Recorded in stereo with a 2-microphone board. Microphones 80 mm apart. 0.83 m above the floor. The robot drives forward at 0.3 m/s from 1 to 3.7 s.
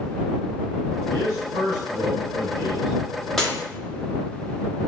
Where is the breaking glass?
Centre (ahead or behind), 0.8 m.